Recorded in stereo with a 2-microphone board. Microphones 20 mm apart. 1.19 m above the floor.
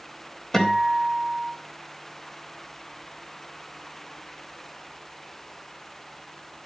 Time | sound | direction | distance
0.5 | a guitar | 15° left (ahead or behind) | 4 m